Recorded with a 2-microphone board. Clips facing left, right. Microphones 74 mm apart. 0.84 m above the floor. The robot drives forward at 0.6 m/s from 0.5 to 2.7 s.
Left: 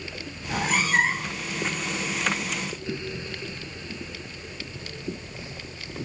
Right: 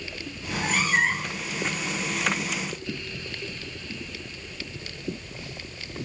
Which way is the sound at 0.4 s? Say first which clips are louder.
Left 1 dB; 65° left (ahead or behind).